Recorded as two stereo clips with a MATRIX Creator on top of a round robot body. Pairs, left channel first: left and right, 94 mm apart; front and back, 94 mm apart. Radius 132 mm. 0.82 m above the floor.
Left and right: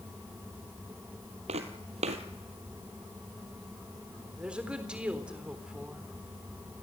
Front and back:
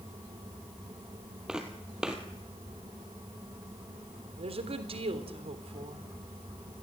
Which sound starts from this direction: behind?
A woman speaking, at 4.4 s.